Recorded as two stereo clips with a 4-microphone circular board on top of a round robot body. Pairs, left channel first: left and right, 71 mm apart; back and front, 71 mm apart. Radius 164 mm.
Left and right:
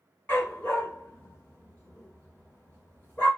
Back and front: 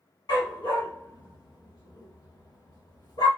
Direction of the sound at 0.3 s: 155° left.